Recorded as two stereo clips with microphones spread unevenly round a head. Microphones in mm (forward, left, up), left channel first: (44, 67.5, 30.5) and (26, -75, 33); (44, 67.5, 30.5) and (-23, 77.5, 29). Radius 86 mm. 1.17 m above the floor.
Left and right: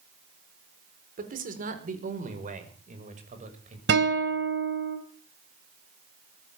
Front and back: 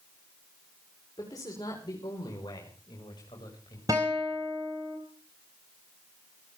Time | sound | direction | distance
1.2 | a man speaking | 70° right | 4.5 m
3.9 | a guitar | 120° right | 3.5 m